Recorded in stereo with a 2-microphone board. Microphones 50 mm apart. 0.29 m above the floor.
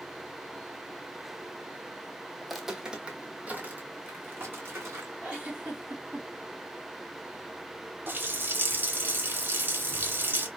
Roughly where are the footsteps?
Centre.